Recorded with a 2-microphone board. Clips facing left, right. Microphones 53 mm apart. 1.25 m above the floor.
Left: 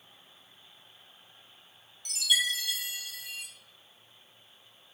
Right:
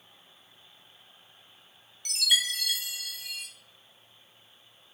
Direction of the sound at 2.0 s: 55° right (ahead or behind).